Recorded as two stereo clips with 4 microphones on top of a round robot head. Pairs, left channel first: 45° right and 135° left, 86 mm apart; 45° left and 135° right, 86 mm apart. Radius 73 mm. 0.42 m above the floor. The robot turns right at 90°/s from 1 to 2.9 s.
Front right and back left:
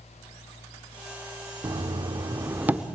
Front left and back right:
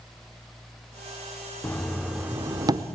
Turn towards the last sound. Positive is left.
turn(degrees=-140)